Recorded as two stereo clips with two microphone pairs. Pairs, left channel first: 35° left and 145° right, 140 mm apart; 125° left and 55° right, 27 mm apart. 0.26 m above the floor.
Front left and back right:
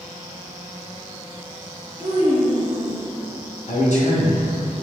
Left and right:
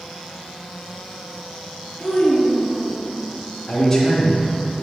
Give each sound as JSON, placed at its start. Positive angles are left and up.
{"t": 2.0, "sound": "a child speaking", "azimuth_deg": 145, "distance_m": 2.5}
{"t": 3.7, "sound": "a man speaking", "azimuth_deg": 65, "distance_m": 2.0}